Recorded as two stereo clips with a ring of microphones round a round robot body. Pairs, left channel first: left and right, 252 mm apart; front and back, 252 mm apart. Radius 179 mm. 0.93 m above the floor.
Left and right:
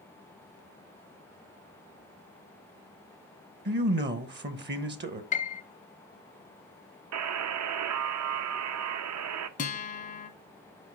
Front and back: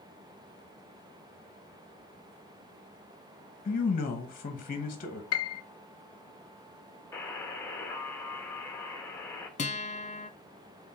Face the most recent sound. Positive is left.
turn(degrees=50)